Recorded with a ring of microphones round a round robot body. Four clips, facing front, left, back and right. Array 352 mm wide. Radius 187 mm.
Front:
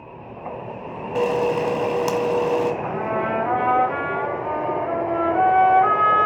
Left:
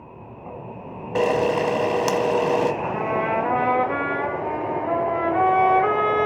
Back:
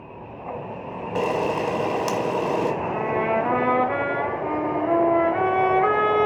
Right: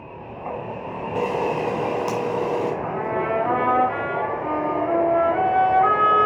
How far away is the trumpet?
About 4.5 m.